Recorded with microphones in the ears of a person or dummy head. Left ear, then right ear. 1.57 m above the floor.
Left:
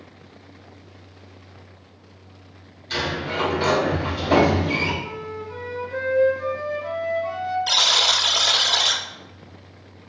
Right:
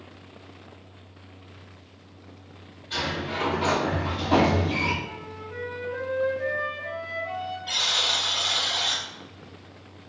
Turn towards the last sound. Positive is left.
turn(degrees=70)  # may be behind; listen again after turning